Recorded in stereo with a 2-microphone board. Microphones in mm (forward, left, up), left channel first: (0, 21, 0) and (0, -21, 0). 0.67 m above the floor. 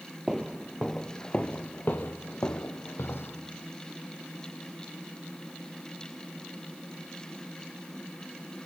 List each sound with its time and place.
0.3 s footsteps: 5° right (ahead or behind), 1.2 m; by 3.4 s 75° left (ahead or behind), 2 m